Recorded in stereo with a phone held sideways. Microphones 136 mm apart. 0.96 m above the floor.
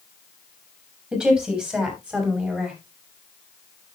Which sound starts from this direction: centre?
A woman speaking, at 1.1 s.